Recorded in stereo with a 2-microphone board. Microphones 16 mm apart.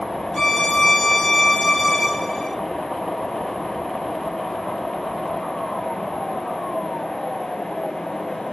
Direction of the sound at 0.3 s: 25° left (ahead or behind).